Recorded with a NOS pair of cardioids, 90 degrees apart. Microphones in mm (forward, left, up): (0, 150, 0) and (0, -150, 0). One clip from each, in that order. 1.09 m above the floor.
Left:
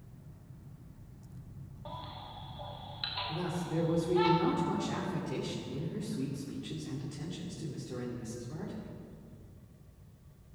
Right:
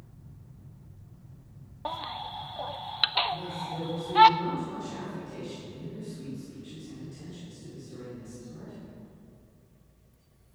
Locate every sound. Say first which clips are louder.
1.9 s a baby crying: right 10 dB; 65° right, 0.5 m
3.3 s a man speaking: right 3 dB; 50° left, 3 m